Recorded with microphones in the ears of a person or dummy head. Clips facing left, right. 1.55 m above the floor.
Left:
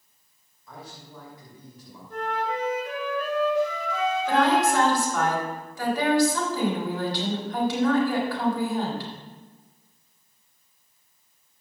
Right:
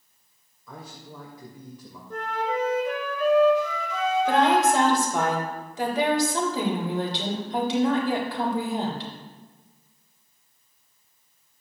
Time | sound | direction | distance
0.7 | a man speaking | 85° right | 3 m
2.1 | a flute | 80° right | 4.5 m
4.3 | a woman speaking | 20° right (ahead or behind) | 3.5 m